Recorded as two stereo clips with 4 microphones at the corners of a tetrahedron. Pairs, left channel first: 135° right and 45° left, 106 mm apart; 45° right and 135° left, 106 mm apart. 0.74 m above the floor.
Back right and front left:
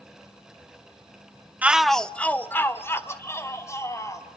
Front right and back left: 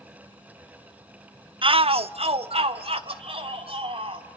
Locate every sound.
1.6 s a shout: 120° left, 0.8 m; by 4.3 s 165° left, 4 m